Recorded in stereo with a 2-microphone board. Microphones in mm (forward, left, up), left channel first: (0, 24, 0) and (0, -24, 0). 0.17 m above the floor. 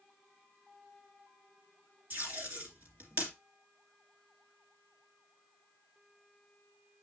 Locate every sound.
2.1 s tape being pulled: 45° right (ahead or behind), 2.5 m